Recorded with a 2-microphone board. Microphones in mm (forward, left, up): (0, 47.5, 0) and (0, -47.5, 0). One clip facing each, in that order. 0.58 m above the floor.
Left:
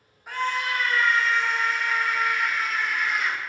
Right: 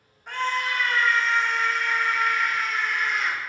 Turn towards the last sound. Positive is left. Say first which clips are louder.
# even
turn(degrees=5)  # may be behind; listen again after turning